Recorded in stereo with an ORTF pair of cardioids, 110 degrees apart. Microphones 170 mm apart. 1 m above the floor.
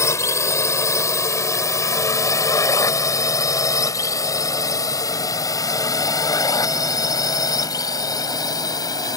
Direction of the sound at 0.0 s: 15° left.